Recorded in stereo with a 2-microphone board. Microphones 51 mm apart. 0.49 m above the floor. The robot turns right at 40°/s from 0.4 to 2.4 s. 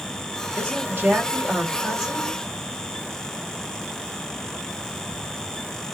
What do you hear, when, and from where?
0.6 s a woman speaking: 75° right, 1.4 m; by 2.4 s straight ahead, 1.4 m